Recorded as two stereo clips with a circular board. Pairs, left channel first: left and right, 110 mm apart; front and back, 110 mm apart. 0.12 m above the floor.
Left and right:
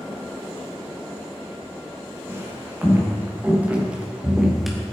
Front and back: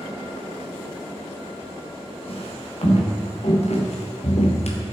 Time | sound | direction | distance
2.3 | footsteps | 25° right | 4.5 m